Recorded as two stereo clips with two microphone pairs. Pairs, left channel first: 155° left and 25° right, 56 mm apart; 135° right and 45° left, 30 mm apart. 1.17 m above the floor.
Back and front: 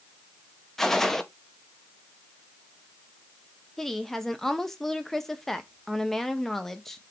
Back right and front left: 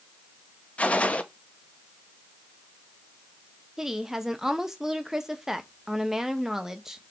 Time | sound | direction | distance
0.8 | a gunshot | 130° right | 0.5 m
3.8 | a woman speaking | 90° left | 0.6 m